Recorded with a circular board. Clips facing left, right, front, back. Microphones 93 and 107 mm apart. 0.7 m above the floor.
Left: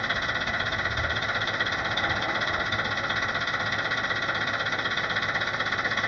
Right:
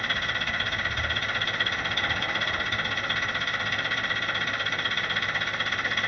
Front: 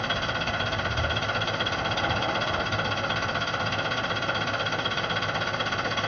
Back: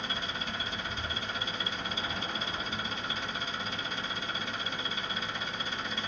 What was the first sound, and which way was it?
An engine running, 20° left.